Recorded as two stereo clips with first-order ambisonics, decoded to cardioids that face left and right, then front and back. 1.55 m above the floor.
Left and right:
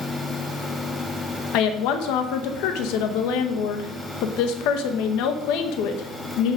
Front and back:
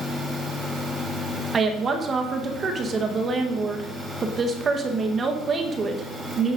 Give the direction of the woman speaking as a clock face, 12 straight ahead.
8 o'clock.